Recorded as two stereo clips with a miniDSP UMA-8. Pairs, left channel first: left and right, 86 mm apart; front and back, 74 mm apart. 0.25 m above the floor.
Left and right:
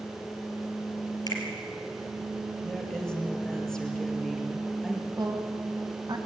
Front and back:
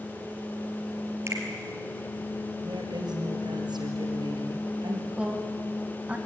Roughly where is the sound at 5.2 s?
Right.